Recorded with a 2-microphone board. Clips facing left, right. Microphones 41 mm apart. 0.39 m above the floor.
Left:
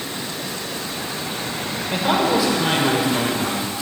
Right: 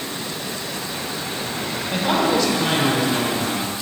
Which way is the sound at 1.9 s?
10° left (ahead or behind).